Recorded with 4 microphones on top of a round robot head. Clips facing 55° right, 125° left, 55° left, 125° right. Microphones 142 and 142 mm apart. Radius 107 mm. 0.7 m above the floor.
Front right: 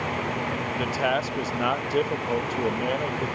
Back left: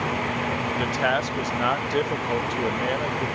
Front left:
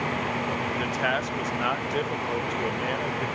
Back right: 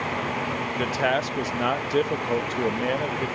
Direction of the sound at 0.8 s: 130° right.